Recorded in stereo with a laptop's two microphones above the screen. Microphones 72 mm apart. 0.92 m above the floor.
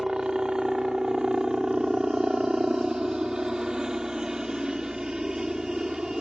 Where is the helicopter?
10° right (ahead or behind).